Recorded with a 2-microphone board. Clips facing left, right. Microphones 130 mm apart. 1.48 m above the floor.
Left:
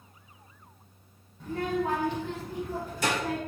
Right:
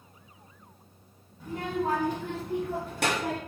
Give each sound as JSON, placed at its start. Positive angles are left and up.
{"t": 1.4, "sound": "a child speaking", "side_deg": -5, "distance_m": 0.7}